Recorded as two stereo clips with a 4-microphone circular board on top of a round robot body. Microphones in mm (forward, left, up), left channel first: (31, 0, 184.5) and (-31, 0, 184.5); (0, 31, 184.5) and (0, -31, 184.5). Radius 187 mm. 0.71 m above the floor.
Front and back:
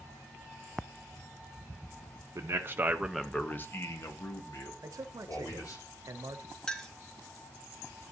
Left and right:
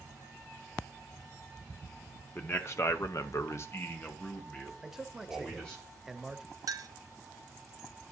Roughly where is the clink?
Right.